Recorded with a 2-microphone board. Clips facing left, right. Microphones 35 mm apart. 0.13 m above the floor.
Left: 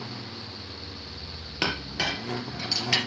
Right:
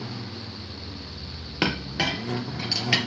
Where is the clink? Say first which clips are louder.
Right 3 dB; 15° right (ahead or behind), 2 m.